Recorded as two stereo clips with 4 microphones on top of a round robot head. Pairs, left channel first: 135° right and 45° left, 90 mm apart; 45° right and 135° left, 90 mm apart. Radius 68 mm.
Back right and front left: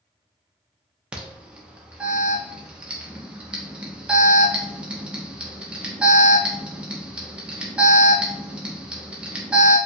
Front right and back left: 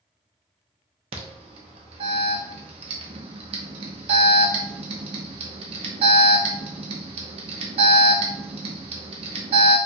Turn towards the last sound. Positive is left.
turn(degrees=120)